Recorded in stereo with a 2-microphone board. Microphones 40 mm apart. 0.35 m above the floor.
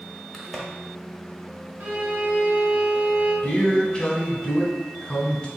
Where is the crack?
5° left (ahead or behind), 0.9 m.